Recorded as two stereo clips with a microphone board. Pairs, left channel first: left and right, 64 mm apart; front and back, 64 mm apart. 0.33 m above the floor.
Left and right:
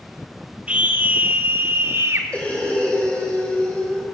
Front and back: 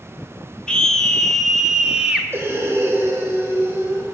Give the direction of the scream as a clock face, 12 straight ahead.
2 o'clock.